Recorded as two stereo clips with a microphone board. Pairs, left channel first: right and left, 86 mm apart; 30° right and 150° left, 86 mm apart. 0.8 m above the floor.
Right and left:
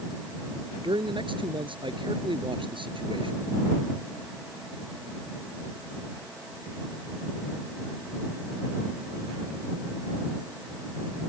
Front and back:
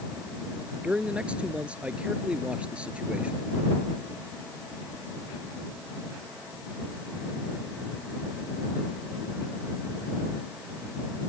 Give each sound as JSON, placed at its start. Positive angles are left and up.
{"t": 0.8, "sound": "a man speaking", "azimuth_deg": 75}